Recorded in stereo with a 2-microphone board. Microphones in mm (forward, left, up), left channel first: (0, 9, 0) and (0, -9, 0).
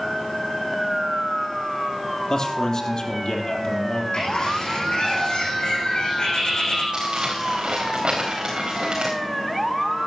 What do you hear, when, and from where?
2.3 s a man speaking: 55° left (ahead or behind), 3 m
4.1 s a bird: 75° left (ahead or behind), 6.5 m
6.9 s crumpling: 70° right (ahead or behind), 4 m